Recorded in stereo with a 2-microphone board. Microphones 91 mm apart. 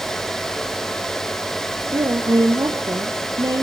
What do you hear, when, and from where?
1.8 s a woman speaking: 45° right (ahead or behind), 3 m